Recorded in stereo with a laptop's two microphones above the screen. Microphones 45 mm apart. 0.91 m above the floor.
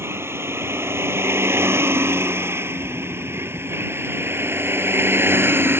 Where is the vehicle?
85° right; by 5.8 s 65° right (ahead or behind).